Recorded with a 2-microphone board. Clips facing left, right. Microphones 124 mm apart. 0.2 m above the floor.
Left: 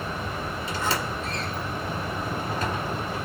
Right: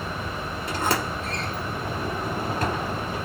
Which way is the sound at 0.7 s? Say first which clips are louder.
Right 3 dB; 60° right (ahead or behind).